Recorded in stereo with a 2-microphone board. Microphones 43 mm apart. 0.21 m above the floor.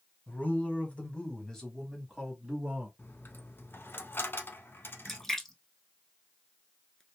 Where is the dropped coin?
60° left (ahead or behind), 0.6 m.